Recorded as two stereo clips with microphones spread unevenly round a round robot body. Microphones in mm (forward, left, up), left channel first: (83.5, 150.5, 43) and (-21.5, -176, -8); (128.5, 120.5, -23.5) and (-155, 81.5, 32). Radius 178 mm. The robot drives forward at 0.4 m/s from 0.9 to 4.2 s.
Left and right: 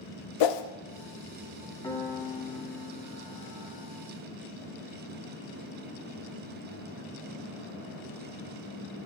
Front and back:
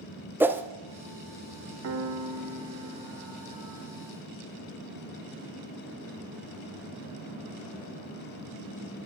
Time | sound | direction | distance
0.4 | a whoosh | 105° left | 0.5 m
1.8 | a piano | 160° left | 0.6 m